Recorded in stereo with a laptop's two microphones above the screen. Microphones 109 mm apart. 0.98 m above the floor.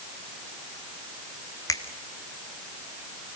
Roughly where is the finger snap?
Left.